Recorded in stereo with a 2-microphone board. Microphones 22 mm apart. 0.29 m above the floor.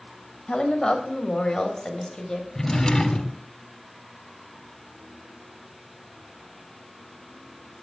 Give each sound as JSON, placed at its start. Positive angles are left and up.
{"t": 0.5, "sound": "a woman speaking", "side_deg": 30, "distance_m": 1.3}
{"t": 2.5, "sound": "a drawer", "side_deg": 20, "distance_m": 0.9}